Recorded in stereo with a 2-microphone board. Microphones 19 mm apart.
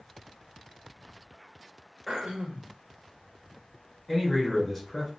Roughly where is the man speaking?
Centre.